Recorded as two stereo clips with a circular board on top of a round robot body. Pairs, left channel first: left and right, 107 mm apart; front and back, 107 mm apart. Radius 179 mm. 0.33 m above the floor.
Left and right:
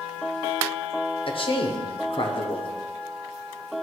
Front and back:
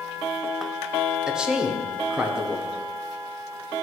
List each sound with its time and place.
1.3 s a man speaking: 100° left, 1.2 m